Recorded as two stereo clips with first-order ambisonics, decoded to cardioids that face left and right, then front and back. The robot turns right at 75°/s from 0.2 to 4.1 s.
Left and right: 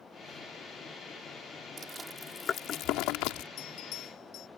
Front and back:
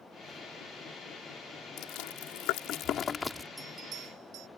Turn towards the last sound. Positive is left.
turn(degrees=140)